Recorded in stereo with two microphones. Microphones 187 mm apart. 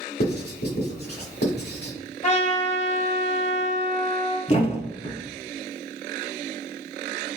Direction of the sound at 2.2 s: 40° left (ahead or behind).